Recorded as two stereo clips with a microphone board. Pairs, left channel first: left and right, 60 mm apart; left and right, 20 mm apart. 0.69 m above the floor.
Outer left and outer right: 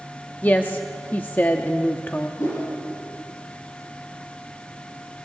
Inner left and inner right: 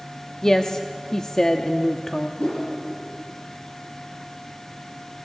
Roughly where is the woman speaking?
Left.